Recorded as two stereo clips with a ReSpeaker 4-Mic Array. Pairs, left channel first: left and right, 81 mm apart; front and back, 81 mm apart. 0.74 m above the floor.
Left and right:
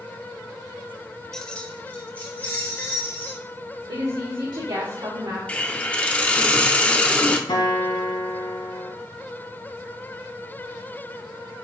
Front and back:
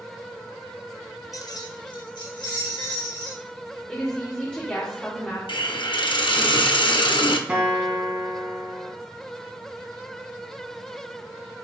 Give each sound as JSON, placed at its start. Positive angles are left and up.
{"t": 1.3, "sound": "keys jangling", "azimuth_deg": 10, "distance_m": 0.6}
{"t": 3.9, "sound": "a woman speaking", "azimuth_deg": -70, "distance_m": 2.0}
{"t": 5.5, "sound": "a hiss", "azimuth_deg": 15, "distance_m": 0.7}
{"t": 7.5, "sound": "a guitar", "azimuth_deg": 105, "distance_m": 1.6}